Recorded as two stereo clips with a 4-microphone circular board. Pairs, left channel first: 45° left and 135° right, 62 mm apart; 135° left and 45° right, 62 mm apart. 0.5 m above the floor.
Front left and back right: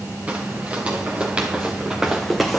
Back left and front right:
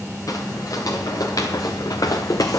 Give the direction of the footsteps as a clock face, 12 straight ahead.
7 o'clock.